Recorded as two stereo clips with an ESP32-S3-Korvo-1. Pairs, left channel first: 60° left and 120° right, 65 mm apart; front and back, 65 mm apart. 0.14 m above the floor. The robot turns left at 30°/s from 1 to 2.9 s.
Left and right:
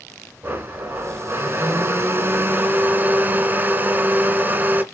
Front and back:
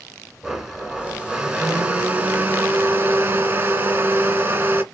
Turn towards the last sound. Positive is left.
turn(degrees=-150)